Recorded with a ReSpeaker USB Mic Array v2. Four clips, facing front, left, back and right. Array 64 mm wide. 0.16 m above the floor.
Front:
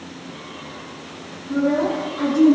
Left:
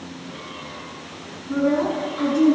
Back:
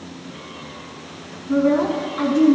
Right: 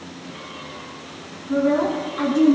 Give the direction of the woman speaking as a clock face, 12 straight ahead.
6 o'clock.